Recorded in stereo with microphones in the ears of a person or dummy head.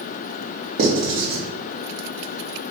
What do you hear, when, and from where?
0.8 s writing: 45° right (ahead or behind), 0.7 m